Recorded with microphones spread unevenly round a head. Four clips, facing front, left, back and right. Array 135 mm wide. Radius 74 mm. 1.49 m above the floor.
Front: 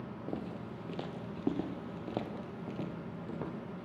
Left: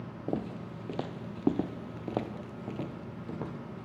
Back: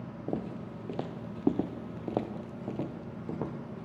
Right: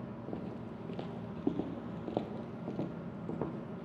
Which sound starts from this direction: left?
Footsteps, at 0.3 s.